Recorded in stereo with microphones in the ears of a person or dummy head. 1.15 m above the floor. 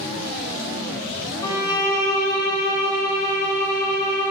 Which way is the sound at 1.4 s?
20° left (ahead or behind).